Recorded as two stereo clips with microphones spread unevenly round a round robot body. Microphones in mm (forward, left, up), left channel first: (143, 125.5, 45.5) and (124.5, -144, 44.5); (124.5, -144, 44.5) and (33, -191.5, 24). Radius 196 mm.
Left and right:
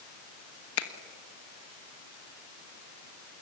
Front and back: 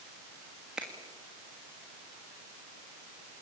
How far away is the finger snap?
About 1.3 m.